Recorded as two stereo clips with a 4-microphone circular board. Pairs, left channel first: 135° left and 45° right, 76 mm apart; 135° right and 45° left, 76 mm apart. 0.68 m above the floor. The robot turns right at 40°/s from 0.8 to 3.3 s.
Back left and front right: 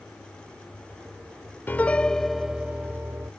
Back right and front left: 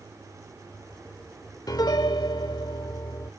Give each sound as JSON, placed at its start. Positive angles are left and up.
{"t": 1.7, "sound": "a piano", "azimuth_deg": -160}